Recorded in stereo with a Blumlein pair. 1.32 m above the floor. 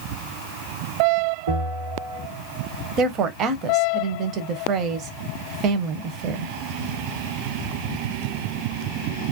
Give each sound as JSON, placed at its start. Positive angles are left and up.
{"t": 1.5, "sound": "a bell", "azimuth_deg": -60, "distance_m": 1.2}
{"t": 3.0, "sound": "a woman speaking", "azimuth_deg": -35, "distance_m": 0.6}